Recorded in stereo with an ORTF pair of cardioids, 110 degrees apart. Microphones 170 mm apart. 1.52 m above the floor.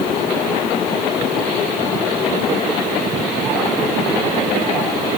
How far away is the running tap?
I don't hear a running tap.